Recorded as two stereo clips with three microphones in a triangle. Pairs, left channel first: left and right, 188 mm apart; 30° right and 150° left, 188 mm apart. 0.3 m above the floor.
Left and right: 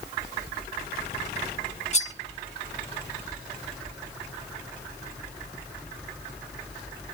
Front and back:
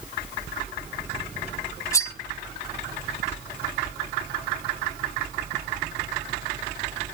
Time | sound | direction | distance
1.9 | cutlery clinking | 40° left | 0.9 m